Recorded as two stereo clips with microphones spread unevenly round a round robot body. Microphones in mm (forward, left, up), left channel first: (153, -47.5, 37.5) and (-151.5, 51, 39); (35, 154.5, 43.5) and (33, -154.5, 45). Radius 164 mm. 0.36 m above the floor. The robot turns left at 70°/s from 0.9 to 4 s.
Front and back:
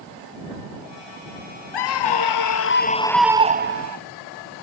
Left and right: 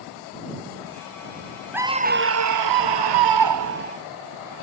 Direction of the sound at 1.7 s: 5° right.